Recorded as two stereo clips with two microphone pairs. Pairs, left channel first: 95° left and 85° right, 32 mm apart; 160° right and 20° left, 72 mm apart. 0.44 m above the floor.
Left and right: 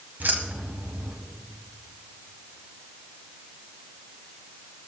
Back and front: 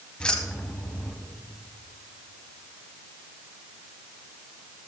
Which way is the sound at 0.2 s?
80° right.